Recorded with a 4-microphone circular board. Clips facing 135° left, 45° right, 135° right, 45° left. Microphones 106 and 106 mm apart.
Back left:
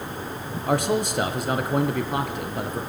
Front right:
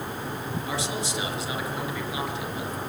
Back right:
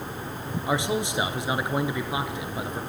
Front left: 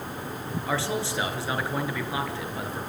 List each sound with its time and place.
0.7 s a man speaking: 155° left, 2.5 m